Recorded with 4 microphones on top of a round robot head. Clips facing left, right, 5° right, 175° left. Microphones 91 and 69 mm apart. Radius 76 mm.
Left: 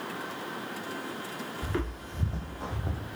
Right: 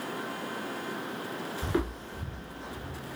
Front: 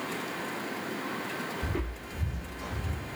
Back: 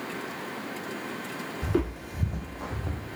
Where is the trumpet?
I don't hear a trumpet.